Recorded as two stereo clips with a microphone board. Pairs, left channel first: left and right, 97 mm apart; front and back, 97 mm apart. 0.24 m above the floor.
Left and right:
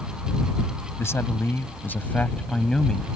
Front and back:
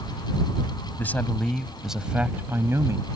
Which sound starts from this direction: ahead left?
A man speaking, at 1.0 s.